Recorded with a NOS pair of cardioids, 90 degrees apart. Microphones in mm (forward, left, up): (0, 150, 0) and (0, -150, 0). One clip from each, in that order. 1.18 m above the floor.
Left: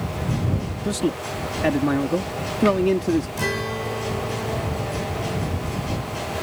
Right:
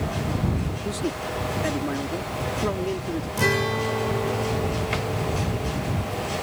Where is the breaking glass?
I don't hear breaking glass.